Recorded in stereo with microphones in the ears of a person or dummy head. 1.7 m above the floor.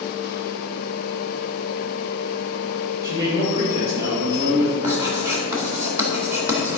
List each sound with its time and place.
3.0 s a man speaking: 20° right (ahead or behind), 2.5 m
4.8 s writing: 15° right (ahead or behind), 2 m